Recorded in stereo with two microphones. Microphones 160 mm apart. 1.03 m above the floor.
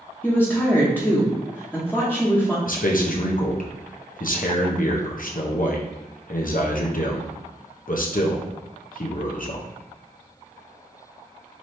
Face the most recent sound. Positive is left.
turn(degrees=65)  # may be behind; listen again after turning